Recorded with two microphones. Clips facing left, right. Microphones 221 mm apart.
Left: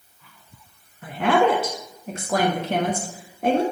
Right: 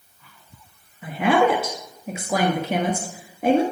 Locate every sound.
1.0 s a woman speaking: 5° right (ahead or behind), 1.1 m